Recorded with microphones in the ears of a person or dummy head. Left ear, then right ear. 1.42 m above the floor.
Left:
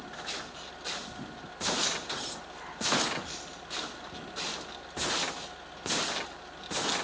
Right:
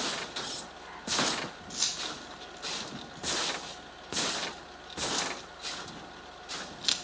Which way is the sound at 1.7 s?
80° right.